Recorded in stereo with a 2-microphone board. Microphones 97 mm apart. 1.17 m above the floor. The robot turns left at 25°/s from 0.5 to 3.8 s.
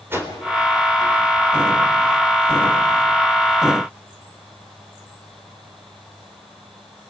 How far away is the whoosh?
About 3.5 m.